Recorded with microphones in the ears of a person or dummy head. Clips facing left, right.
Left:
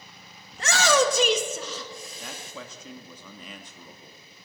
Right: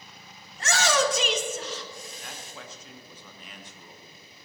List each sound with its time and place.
0.5 s a shout: 55° left (ahead or behind), 1.3 m; by 2.5 s 60° left (ahead or behind), 1.2 m
2.2 s a man speaking: 80° left, 1.5 m